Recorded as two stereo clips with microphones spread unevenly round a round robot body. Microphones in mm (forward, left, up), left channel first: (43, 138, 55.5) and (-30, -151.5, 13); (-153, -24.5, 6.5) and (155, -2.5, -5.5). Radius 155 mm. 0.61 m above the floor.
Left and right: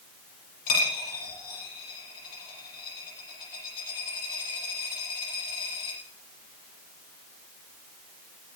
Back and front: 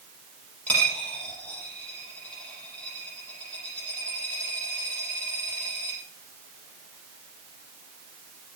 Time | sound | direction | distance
0.7 | a dropped coin | 100° left | 6.5 m